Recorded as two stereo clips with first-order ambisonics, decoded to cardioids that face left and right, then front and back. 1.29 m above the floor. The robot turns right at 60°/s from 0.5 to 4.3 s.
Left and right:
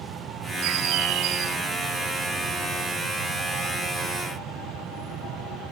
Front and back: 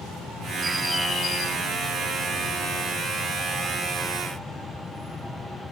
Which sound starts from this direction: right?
A bird, at 0.6 s.